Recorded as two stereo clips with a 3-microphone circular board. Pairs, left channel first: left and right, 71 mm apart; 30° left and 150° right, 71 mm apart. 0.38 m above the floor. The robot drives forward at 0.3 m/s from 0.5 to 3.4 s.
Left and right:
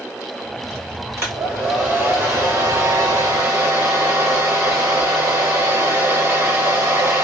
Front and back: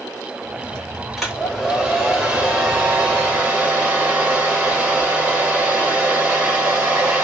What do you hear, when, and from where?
1.2 s a hair dryer: 60° right, 1.6 m; by 7.2 s 95° right, 1.5 m